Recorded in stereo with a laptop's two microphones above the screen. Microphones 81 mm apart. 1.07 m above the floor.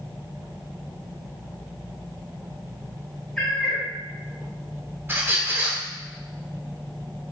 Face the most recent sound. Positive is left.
turn(degrees=-25)  # may be behind; listen again after turning